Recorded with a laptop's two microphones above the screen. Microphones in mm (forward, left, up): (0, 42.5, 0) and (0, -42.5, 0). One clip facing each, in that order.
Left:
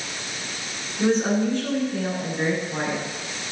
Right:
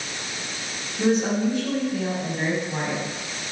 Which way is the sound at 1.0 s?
10° right (ahead or behind).